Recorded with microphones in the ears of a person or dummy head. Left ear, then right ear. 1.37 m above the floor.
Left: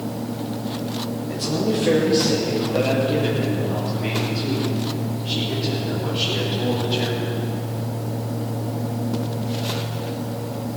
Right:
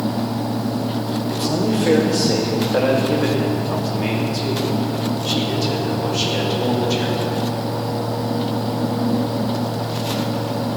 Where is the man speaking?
10° right (ahead or behind), 3 m; by 7.4 s 80° right, 6 m.